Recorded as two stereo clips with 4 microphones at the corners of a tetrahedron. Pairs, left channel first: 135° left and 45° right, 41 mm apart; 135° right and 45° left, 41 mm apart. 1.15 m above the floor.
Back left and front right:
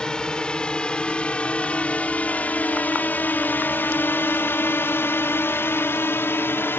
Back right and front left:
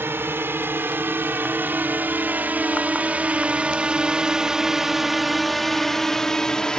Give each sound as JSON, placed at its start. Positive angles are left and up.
{"t": 0.0, "sound": "a drone", "azimuth_deg": 65}